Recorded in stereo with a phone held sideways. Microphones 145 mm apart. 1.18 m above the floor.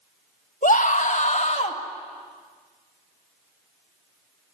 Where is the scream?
60° left (ahead or behind), 1.8 m; by 1.8 s 50° left (ahead or behind), 2.5 m.